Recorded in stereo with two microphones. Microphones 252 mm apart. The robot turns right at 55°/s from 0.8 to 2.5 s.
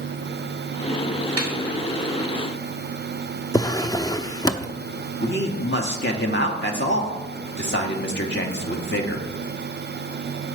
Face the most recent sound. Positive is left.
turn(degrees=45)  # may be behind; listen again after turning